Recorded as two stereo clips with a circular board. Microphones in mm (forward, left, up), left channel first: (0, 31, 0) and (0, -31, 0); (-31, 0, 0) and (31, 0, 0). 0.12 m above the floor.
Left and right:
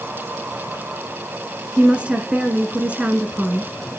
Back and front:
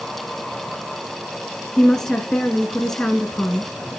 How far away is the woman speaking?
About 1.3 m.